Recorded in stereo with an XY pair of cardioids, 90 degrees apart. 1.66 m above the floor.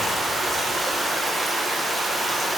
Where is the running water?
25° right, 1.6 m.